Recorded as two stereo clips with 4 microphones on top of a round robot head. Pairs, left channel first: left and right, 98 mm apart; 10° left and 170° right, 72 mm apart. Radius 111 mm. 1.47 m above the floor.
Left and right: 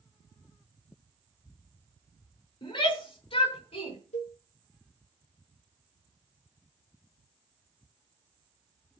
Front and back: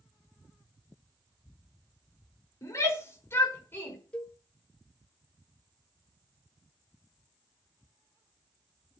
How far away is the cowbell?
About 2.5 m.